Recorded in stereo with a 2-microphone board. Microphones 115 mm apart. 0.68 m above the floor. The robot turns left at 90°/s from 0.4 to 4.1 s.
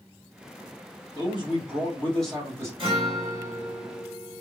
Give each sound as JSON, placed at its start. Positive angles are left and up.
{"t": 1.1, "sound": "a man speaking", "azimuth_deg": 100, "distance_m": 1.5}
{"t": 2.8, "sound": "a guitar", "azimuth_deg": -75, "distance_m": 1.6}